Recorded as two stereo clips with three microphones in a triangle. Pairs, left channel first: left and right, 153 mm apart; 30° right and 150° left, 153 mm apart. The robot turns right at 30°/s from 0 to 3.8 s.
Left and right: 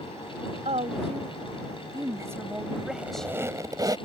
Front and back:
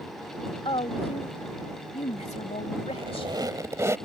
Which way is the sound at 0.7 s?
75° right.